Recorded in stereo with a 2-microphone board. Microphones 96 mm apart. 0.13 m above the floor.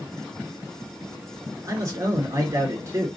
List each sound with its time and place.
1.7 s a man speaking: 35° right (ahead or behind), 2.0 m